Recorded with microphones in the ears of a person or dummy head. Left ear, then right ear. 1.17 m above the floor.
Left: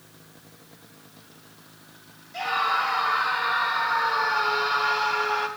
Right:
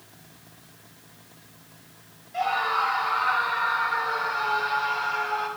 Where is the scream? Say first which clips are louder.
Even; 10° left (ahead or behind), 4 m; by 5.5 s 40° left (ahead or behind), 3.5 m.